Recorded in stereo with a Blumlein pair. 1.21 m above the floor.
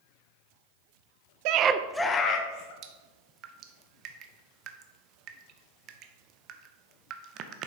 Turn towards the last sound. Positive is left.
turn(degrees=-35)